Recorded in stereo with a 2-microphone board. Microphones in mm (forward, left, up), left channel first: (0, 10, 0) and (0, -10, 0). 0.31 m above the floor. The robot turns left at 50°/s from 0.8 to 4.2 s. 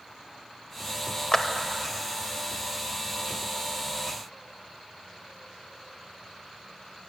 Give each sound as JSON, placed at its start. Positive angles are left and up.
{"t": 1.3, "sound": "a clap", "side_deg": 20, "distance_m": 0.7}